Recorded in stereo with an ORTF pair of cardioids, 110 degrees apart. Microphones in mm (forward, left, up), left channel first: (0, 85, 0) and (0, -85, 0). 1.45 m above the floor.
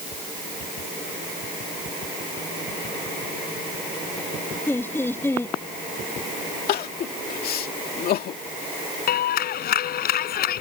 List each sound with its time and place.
4.7 s laughter: 15° left
6.7 s crying: 65° left
9.1 s a clap: 60° left